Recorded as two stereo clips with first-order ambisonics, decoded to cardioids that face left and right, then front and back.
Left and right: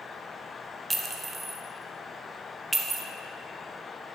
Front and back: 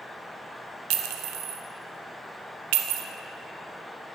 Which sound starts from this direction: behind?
A clink, at 0.9 s.